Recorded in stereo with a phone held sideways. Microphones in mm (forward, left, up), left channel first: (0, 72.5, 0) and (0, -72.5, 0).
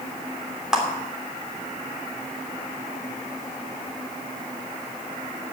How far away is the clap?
About 3 m.